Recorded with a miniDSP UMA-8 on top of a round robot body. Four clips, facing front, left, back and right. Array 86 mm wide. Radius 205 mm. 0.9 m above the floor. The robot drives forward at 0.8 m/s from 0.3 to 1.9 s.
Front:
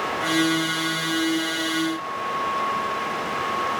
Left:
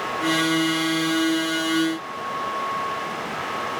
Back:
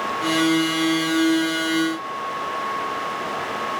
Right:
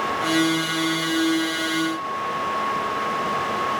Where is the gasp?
No gasp in this recording.